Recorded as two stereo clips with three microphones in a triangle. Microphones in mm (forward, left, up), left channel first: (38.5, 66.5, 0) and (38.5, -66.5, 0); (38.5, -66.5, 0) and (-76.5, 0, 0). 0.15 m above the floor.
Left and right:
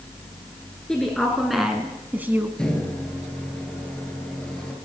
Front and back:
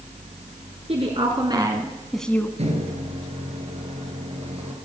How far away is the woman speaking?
About 2.0 m.